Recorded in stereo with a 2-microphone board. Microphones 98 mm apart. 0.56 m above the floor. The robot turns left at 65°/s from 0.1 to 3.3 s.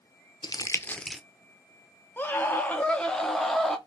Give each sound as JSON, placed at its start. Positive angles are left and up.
{"t": 0.4, "sound": "crumpling", "side_deg": 45, "distance_m": 0.5}
{"t": 2.2, "sound": "a scream", "side_deg": 20, "distance_m": 0.8}